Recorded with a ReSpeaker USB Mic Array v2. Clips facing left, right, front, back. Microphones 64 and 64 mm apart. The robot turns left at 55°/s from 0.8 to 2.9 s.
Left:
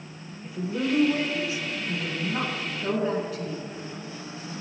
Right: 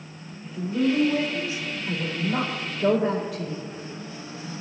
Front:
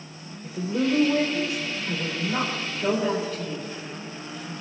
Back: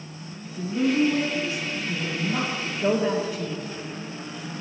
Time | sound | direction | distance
0.4 | a woman speaking | 10° left | 3.5 m